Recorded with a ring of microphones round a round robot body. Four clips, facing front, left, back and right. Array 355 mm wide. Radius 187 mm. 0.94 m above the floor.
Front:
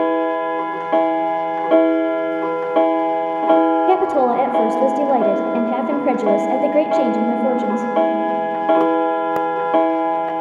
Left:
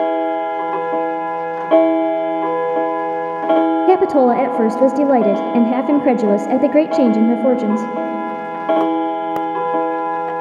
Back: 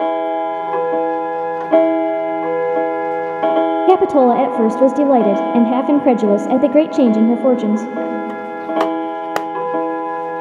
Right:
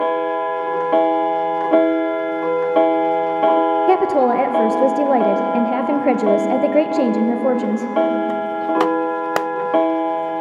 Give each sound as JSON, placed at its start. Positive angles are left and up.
{"t": 3.9, "sound": "a woman speaking", "azimuth_deg": 145, "distance_m": 1.1}